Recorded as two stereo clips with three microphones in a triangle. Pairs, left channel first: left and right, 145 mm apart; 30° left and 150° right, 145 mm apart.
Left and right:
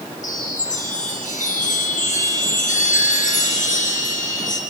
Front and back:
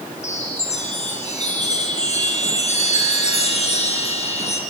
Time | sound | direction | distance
0.2 | a chime | 65° left | 3 m